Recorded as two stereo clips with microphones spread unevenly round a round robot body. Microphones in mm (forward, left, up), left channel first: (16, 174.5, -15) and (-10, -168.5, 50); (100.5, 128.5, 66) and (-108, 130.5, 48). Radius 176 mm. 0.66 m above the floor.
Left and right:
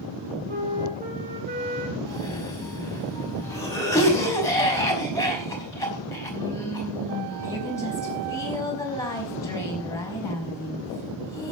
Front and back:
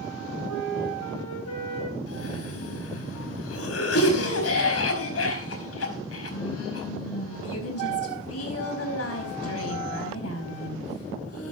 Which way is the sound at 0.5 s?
25° right.